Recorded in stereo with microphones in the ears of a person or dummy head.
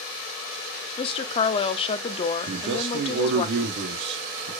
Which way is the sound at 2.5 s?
60° right (ahead or behind).